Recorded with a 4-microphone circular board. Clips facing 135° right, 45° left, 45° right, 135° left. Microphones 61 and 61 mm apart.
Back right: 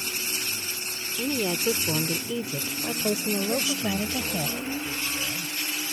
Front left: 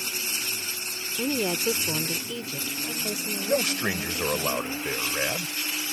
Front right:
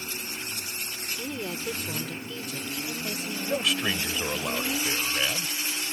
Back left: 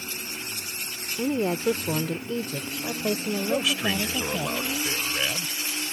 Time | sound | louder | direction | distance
1.2 | a woman speaking | even, back left 11 dB | 110° left | ?
3.5 | a man speaking | front left 2 dB, even | 50° left | ?